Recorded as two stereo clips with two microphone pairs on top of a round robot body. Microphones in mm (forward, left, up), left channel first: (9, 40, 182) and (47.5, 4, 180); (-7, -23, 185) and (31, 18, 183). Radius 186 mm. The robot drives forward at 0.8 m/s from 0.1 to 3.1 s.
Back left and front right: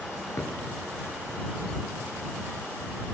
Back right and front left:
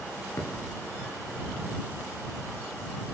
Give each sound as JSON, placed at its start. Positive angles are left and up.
{"t": 0.4, "sound": "a thud", "azimuth_deg": 175, "distance_m": 5.5}